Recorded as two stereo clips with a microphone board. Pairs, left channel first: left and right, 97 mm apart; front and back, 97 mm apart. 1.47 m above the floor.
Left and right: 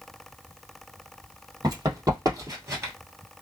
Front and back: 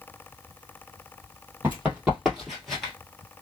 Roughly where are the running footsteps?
Behind right.